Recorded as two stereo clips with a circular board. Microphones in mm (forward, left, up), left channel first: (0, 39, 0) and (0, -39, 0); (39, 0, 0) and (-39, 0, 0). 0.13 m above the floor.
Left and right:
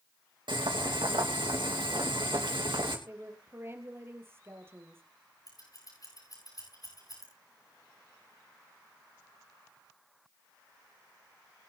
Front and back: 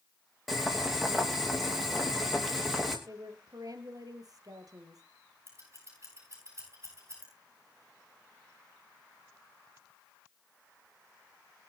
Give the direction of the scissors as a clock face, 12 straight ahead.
8 o'clock.